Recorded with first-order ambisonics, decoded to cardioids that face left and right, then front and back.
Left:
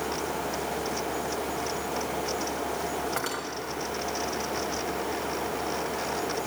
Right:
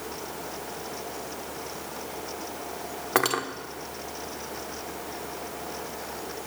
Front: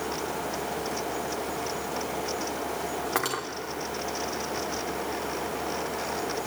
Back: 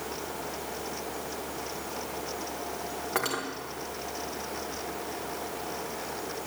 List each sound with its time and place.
3.1 s cutlery clinking: 80° right, 1.4 m